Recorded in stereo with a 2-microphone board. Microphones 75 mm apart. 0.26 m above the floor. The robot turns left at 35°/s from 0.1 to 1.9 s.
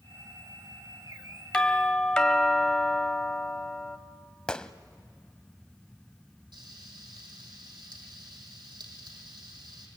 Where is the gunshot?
10° left (ahead or behind), 0.8 m.